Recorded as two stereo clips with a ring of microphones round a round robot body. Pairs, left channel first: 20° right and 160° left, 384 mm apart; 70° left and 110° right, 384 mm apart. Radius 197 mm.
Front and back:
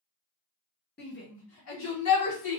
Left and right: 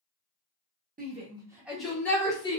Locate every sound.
1.0 s a shout: 65° right, 1.0 m; by 2.6 s 5° right, 1.4 m